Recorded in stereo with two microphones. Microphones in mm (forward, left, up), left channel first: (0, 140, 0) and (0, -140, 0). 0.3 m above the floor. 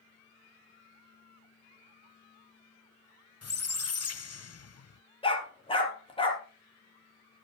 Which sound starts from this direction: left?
A squeak, at 3.4 s.